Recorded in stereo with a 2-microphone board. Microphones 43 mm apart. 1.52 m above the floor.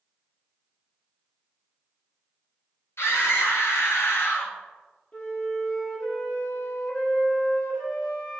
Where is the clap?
I don't hear a clap.